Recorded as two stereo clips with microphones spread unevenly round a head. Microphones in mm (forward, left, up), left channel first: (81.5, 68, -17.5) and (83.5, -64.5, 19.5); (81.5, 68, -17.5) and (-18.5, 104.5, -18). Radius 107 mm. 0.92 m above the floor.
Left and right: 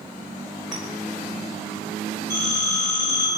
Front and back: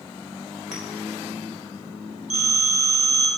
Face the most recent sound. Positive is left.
turn(degrees=170)